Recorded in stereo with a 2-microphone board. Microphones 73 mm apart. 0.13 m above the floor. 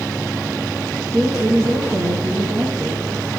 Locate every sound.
1.1 s a woman speaking: 35° right (ahead or behind), 5.5 m